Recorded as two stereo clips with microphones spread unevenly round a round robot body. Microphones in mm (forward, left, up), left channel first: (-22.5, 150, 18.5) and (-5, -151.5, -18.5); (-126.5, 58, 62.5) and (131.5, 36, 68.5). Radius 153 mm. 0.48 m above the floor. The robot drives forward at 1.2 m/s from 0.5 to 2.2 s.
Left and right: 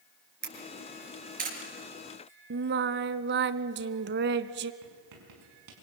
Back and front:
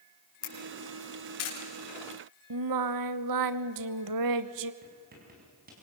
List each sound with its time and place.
0.4 s a camera shutter: 145° right, 5 m; by 1.6 s 150° right, 6 m
2.5 s singing: 25° right, 0.7 m
4.8 s writing: 65° right, 5.5 m